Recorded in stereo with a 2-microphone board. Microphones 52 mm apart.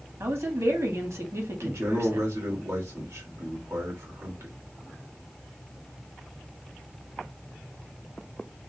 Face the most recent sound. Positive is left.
turn(degrees=-70)  # may be behind; listen again after turning